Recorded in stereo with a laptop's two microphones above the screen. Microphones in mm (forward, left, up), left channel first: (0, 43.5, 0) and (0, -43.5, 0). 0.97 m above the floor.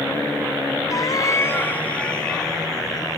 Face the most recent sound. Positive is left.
turn(degrees=5)  # may be behind; listen again after turning